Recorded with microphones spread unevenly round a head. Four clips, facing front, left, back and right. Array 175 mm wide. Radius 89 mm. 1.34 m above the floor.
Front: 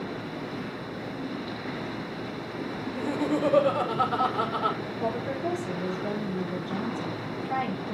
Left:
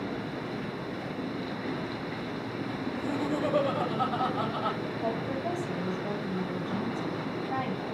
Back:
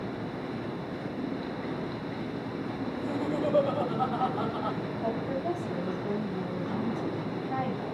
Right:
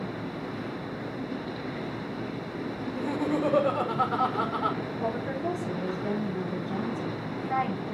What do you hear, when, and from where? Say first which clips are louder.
2.8 s laughter: right 2 dB, front 5 dB; 30° right, 5.5 m
5.0 s a woman speaking: right 1 dB, front 2 dB; 35° right, 4.5 m